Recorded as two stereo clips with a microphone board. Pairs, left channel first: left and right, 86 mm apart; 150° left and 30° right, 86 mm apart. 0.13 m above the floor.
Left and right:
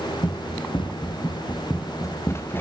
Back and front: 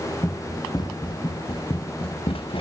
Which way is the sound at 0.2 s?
100° left.